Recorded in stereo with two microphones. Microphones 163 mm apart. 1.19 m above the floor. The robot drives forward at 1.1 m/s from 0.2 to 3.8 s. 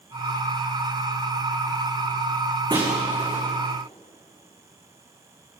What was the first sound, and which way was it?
Breaking glass, 25° right (ahead or behind).